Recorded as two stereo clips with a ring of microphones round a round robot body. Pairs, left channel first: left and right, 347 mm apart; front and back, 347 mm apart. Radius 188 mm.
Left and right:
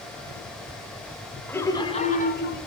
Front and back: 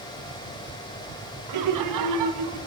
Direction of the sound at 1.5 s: 175° left.